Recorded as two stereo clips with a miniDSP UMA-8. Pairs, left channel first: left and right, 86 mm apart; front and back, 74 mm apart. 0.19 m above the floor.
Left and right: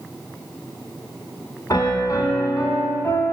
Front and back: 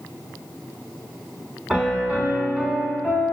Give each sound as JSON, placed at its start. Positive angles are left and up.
{"t": 1.7, "sound": "a piano", "azimuth_deg": 105, "distance_m": 1.1}